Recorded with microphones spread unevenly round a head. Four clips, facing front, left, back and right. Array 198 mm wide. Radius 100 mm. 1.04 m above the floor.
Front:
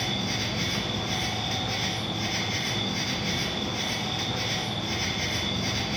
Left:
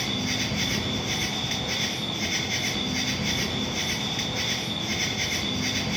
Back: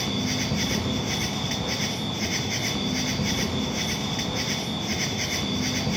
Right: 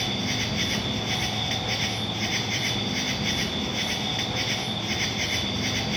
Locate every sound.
0.0 s an insect: straight behind, 0.8 m